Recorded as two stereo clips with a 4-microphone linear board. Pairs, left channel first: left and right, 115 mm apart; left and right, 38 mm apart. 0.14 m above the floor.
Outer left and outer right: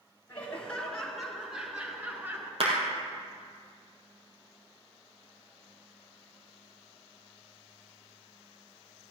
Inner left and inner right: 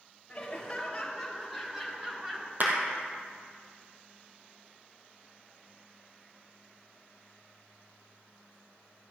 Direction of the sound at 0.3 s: 15° left (ahead or behind).